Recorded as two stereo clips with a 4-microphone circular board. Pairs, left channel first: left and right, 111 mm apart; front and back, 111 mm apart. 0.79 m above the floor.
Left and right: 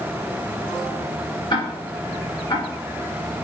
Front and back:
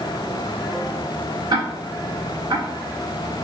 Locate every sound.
1.5 s ticking: 130° left, 1.8 m